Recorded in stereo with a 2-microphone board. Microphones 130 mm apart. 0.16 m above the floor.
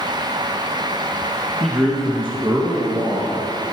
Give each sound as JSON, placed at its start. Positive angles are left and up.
{"t": 1.6, "sound": "a man speaking", "side_deg": 0, "distance_m": 1.5}